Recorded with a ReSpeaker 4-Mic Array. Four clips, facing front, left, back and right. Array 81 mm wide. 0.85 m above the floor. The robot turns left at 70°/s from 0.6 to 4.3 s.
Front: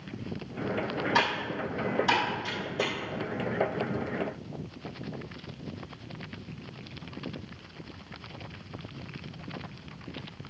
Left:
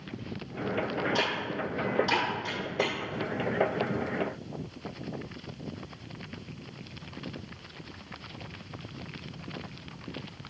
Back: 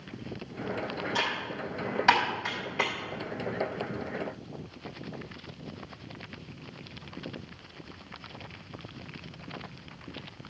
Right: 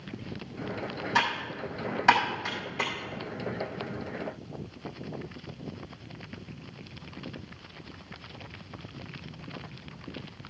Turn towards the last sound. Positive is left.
turn(degrees=85)